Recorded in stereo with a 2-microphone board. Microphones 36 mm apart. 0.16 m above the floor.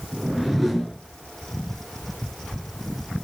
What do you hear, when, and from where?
0.1 s a whoosh: 5° left (ahead or behind), 2.0 m